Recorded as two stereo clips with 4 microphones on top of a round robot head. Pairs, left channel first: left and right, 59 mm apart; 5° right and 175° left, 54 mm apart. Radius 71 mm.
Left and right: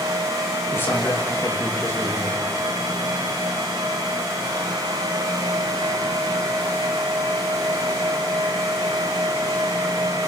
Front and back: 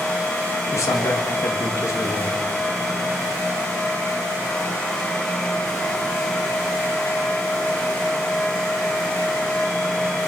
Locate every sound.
0.7 s a man speaking: 35° left, 3.5 m